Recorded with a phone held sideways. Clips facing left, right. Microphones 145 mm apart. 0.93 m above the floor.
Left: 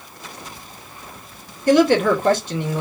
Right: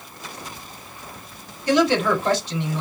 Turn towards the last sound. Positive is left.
turn(degrees=50)  # may be behind; listen again after turning